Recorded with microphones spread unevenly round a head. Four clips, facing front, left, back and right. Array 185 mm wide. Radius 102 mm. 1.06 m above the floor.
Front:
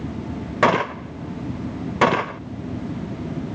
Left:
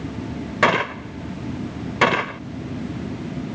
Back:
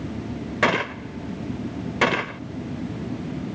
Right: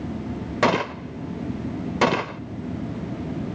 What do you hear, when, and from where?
0.6 s a gunshot: 115° right